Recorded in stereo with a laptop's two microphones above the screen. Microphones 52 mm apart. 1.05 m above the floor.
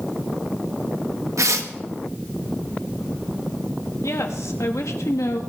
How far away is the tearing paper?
About 1.2 m.